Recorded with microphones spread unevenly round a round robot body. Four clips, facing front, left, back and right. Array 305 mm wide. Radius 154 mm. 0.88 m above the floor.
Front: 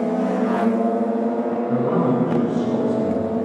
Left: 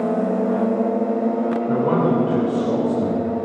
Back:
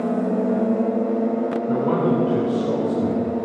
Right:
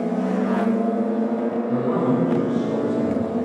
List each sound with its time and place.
1.7 s a man speaking: 120° left, 3 m; by 3.5 s 130° left, 4.5 m